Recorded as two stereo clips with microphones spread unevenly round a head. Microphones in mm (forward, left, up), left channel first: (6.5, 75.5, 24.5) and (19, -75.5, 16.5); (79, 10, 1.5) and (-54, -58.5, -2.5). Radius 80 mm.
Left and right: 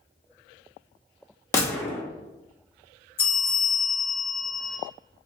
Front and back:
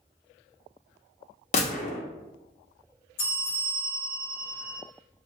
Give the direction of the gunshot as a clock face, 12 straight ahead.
11 o'clock.